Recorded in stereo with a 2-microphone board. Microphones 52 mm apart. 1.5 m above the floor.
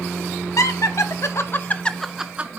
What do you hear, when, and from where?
0.6 s laughter: 80° left, 1.6 m; by 2.6 s 30° right (ahead or behind), 1.0 m